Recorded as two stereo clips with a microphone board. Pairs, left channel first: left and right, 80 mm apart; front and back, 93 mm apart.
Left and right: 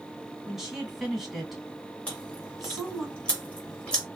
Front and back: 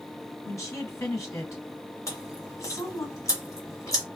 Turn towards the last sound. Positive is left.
turn(degrees=25)